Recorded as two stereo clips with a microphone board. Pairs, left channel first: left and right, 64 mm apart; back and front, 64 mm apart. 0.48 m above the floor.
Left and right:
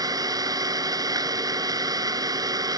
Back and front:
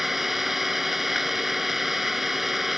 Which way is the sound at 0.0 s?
85° right.